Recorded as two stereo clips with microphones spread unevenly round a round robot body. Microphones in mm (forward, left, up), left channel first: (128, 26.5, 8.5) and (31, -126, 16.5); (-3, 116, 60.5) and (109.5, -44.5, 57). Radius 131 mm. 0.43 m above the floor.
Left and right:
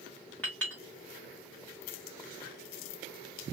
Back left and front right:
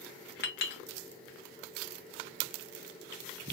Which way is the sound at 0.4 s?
140° left.